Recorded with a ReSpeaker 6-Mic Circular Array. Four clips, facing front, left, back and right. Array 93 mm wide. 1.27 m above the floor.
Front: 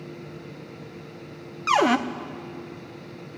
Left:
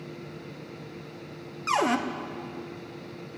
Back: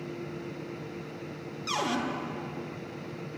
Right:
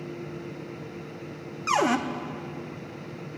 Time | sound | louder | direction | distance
1.7 | a cupboard door | right 1 dB, front 11 dB | 10° right | 0.6 m